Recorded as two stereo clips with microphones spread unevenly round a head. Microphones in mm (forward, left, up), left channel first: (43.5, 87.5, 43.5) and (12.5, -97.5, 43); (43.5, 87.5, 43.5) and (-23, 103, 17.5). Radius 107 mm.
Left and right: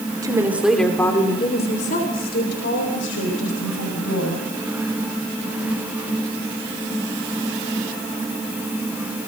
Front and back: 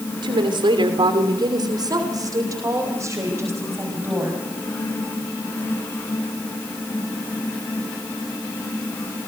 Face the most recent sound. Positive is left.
turn(degrees=105)